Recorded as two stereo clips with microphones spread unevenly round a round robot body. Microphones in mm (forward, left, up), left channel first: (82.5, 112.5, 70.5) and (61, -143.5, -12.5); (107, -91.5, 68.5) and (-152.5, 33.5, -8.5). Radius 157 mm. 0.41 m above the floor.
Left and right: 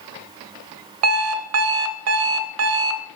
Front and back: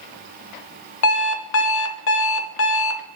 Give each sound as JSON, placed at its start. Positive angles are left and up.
{"t": 1.0, "sound": "an alarm clock", "azimuth_deg": -75, "distance_m": 0.7}